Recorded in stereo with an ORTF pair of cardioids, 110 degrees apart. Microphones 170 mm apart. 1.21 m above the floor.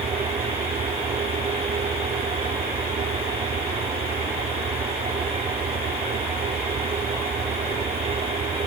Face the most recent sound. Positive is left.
turn(degrees=-40)